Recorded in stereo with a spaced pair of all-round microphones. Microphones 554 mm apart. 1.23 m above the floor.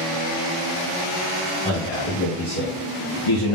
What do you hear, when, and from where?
1.6 s a man speaking: 10° left (ahead or behind), 1.9 m; by 3.6 s 60° left (ahead or behind), 1.0 m